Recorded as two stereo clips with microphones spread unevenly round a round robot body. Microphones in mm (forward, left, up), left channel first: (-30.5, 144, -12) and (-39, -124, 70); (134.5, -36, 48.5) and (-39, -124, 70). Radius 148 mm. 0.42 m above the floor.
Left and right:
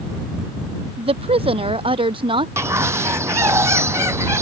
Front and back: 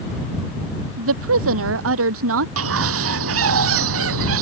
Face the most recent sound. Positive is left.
turn(degrees=-170)